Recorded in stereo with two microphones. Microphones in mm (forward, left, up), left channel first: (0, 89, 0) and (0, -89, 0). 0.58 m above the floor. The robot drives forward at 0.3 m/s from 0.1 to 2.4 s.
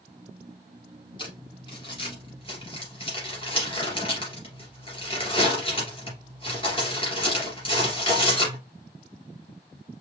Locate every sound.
1.2 s crumpling: 30° left (ahead or behind), 3 m